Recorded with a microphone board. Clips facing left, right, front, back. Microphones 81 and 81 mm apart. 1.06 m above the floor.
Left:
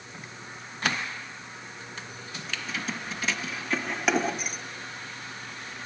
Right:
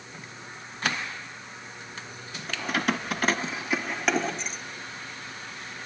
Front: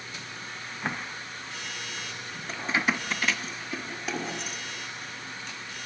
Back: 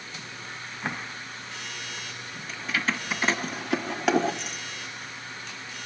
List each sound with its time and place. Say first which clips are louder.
2.5 s keys jangling: right 7 dB, front 2 dB; 55° right, 1.1 m; by 4.6 s 170° left, 1.9 m